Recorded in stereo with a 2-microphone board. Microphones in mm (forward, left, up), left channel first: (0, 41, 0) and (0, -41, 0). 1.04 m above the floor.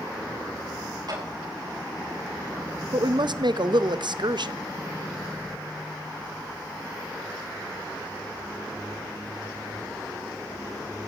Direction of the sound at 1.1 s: 55° right (ahead or behind).